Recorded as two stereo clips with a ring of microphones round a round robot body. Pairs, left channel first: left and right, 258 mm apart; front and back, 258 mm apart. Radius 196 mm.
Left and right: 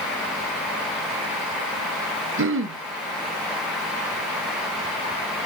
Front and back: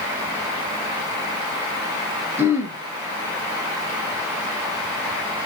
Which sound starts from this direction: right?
Throat clearing, at 2.4 s.